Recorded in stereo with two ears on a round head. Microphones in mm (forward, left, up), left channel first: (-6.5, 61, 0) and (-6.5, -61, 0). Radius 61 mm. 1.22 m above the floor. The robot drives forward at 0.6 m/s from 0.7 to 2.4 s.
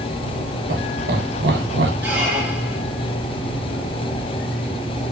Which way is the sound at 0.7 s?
70° right (ahead or behind).